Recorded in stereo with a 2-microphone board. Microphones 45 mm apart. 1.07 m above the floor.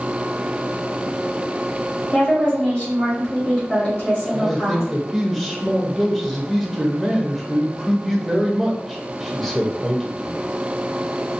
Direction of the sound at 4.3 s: Centre (ahead or behind).